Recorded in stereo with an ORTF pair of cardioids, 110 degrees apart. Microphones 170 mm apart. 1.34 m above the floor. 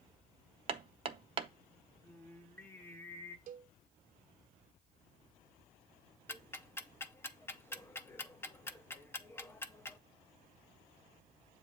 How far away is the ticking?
About 0.6 m.